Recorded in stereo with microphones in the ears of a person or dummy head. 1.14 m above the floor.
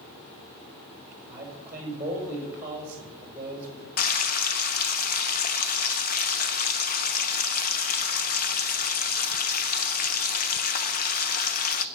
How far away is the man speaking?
About 4.5 m.